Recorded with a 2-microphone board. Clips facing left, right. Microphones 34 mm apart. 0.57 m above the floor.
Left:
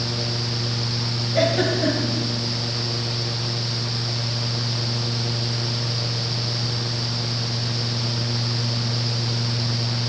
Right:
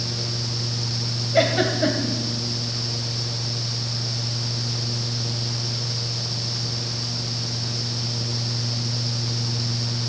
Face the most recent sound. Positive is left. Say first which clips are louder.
# right 1 dB
turn(degrees=-20)  # may be behind; listen again after turning